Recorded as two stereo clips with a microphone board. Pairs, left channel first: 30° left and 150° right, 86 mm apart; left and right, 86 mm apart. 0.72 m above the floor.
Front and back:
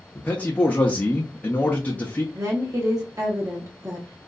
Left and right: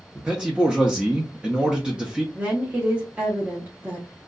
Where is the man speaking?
20° right, 0.6 m.